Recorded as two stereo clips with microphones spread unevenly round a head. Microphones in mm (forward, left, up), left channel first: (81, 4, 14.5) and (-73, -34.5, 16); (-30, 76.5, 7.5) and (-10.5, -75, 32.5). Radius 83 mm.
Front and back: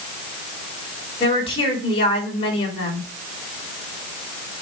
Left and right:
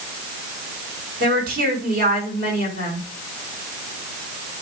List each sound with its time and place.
1.2 s a woman speaking: 40° right, 4.5 m